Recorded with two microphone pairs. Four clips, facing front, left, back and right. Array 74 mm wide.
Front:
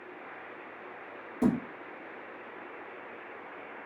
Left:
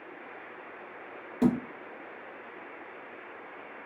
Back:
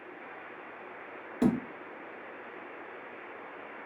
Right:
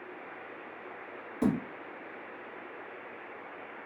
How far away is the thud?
About 1.2 m.